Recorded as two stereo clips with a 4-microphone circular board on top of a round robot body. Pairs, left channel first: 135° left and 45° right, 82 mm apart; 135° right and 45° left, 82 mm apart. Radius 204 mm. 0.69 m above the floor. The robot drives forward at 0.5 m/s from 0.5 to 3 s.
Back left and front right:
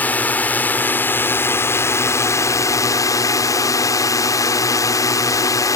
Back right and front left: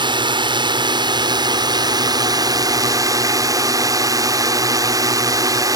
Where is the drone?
65° left; by 5.8 s 90° left.